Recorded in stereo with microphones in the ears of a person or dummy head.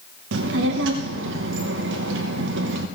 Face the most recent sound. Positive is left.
turn(degrees=-65)  # may be behind; listen again after turning